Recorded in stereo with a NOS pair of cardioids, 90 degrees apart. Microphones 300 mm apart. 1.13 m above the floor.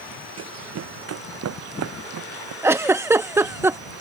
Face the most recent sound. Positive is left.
turn(degrees=-10)